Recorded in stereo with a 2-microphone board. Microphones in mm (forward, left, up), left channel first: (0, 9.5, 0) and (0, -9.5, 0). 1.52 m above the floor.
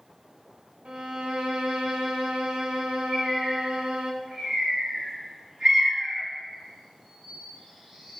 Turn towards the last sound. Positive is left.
turn(degrees=-50)  # may be behind; listen again after turning